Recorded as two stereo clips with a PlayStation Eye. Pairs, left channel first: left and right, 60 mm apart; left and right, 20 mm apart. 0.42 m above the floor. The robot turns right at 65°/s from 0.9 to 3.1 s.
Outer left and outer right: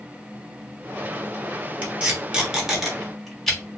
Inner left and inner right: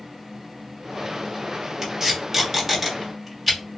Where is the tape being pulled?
30° right (ahead or behind), 1.2 m; by 3.6 s 5° left (ahead or behind), 1.2 m.